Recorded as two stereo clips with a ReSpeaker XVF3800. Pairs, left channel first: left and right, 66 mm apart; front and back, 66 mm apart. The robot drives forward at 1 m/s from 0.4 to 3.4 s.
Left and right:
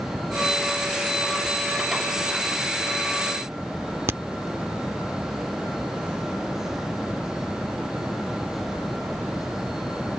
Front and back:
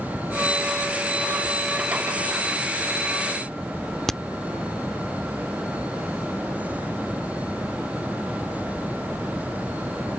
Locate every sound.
4.1 s a crack: 75° right